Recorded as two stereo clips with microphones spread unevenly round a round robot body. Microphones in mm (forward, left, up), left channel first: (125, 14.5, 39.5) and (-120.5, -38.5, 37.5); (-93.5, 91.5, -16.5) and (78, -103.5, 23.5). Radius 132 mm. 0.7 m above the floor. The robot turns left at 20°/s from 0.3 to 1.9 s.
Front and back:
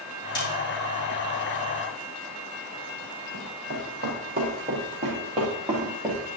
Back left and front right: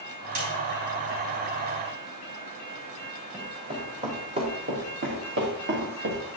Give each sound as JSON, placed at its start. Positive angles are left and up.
{"t": 0.3, "sound": "a snare drum", "azimuth_deg": -60, "distance_m": 4.5}
{"t": 3.3, "sound": "running footsteps", "azimuth_deg": -120, "distance_m": 3.5}